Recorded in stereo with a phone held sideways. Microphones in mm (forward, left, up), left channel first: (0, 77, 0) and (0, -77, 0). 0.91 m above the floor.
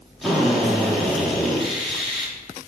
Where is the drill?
Centre (ahead or behind), 2 m.